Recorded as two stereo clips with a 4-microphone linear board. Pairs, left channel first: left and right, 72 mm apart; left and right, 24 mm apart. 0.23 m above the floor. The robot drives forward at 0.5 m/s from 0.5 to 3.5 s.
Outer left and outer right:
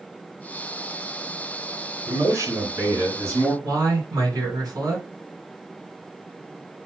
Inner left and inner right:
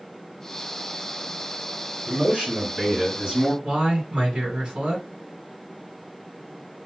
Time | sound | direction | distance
2.1 | a man speaking | 45° right (ahead or behind) | 2 m
3.6 | a man speaking | 60° right (ahead or behind) | 2.5 m